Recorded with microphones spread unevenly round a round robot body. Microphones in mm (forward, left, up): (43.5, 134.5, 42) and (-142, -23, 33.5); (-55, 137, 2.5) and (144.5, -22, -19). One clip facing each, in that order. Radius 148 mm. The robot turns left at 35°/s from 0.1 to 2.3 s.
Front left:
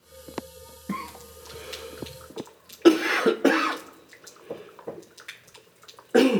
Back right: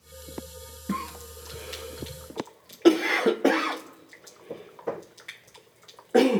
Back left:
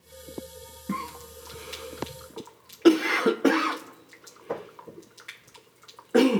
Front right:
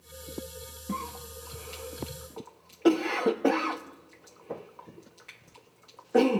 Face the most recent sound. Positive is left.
turn(degrees=115)